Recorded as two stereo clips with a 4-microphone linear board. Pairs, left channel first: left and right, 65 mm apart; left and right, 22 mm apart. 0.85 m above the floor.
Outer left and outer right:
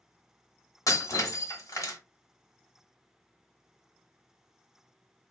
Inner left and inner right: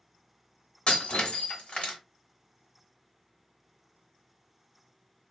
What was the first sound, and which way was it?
Breaking glass, 65° left (ahead or behind).